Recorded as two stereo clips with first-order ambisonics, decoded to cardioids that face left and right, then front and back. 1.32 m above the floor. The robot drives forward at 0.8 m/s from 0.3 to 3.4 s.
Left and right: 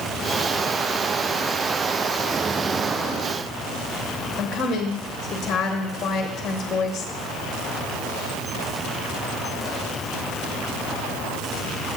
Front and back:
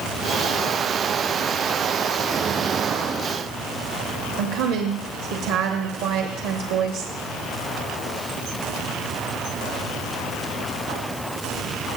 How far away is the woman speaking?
About 1.2 m.